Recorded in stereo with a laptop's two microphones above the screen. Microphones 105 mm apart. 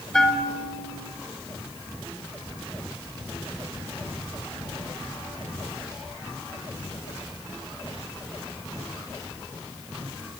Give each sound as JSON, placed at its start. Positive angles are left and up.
{"t": 0.1, "sound": "a bell", "side_deg": 5, "distance_m": 4.5}